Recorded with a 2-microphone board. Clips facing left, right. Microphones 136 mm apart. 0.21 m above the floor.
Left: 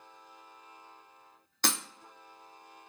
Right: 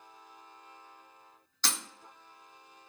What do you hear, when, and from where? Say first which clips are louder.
1.6 s breaking glass: left 4 dB; 55° left (ahead or behind), 0.5 m